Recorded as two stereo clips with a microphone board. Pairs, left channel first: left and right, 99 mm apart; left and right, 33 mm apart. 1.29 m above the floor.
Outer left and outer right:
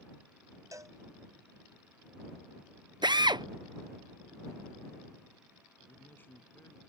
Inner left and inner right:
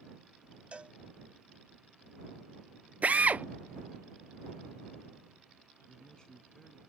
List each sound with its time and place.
0.7 s a cowbell: 35° right (ahead or behind)
3.0 s a drill: 50° right (ahead or behind)
5.9 s a man speaking: 20° left (ahead or behind)